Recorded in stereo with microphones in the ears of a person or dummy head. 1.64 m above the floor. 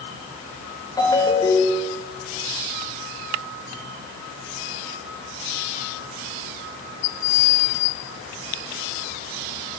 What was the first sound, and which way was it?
A ringtone, 15° left (ahead or behind).